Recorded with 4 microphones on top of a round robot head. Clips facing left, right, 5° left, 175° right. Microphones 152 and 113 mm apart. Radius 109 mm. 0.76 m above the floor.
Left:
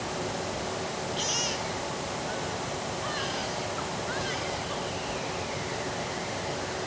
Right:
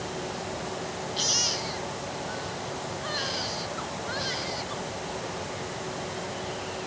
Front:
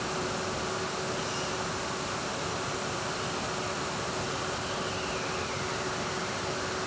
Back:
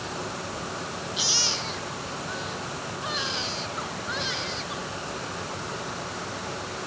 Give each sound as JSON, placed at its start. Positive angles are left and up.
{"t": 1.2, "sound": "a baby crying", "azimuth_deg": -150}